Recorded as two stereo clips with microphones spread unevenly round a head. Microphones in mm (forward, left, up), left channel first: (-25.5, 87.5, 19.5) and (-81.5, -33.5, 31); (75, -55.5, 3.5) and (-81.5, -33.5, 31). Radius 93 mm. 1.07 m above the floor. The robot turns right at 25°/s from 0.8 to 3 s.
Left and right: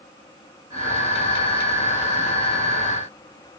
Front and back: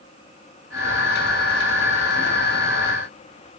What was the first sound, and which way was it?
Only background noise.